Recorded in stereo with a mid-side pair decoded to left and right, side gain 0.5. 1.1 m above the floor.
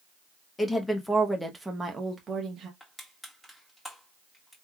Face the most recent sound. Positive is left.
turn(degrees=10)